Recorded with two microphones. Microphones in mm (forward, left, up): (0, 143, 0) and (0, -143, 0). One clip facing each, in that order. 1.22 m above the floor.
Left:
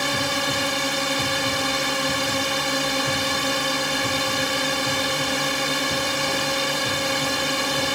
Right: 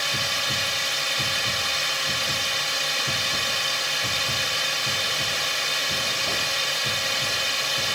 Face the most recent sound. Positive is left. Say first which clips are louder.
# left 9 dB
turn(degrees=60)  # may be behind; listen again after turning